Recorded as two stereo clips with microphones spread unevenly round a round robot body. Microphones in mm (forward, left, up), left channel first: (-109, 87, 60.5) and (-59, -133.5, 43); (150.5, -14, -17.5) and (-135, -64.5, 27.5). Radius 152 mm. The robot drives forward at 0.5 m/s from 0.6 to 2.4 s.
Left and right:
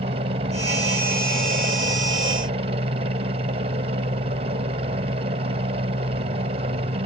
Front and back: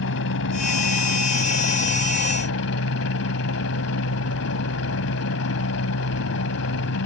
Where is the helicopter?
20° right.